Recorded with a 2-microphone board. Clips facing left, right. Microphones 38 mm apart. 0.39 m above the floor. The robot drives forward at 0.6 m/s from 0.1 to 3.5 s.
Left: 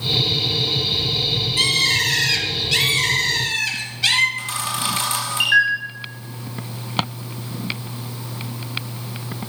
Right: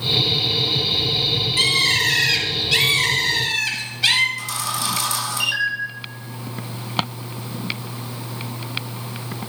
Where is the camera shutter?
40° left (ahead or behind), 3.5 m.